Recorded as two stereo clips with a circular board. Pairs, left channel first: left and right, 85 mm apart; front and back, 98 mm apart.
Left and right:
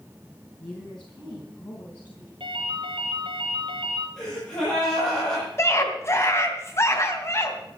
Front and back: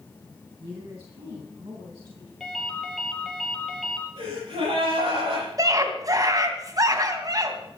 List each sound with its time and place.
0.6 s a woman speaking: 165° left, 3.5 m; by 2.3 s 150° left, 3.5 m
2.4 s a ringtone: 90° right, 3.5 m
4.2 s a gasp: 170° left, 8.5 m
5.6 s a scream: 140° left, 2.5 m